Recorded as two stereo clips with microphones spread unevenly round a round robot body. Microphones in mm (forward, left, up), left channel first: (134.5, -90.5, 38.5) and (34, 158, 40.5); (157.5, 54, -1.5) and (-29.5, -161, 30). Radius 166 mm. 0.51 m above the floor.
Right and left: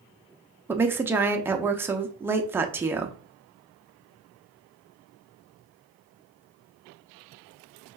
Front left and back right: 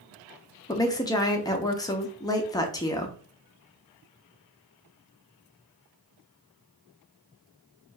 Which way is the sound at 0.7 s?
45° left.